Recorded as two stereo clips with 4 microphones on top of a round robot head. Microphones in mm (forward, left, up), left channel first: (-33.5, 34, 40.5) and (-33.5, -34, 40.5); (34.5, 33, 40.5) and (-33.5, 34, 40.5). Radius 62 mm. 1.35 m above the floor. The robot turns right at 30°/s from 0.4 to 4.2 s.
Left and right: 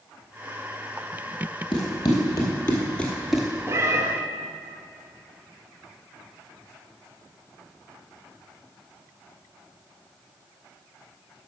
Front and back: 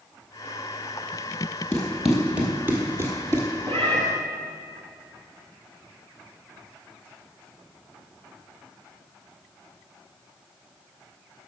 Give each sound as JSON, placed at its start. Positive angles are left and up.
{"t": 1.7, "sound": "running footsteps", "azimuth_deg": 70, "distance_m": 2.0}
{"t": 3.7, "sound": "a cat meowing", "azimuth_deg": -140, "distance_m": 1.0}